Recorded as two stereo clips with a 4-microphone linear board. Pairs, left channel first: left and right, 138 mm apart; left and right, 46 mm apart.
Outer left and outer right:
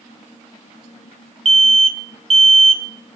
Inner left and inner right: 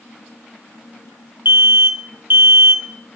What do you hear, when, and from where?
1.4 s an alarm: 45° right (ahead or behind), 0.9 m